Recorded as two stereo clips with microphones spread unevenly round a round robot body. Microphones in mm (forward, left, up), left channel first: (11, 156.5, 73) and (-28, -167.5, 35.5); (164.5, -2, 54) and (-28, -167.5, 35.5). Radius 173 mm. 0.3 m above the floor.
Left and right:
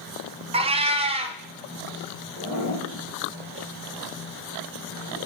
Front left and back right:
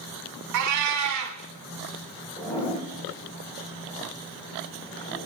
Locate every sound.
0.5 s a cat meowing: 170° right, 0.6 m
2.4 s a zipper: 35° right, 4 m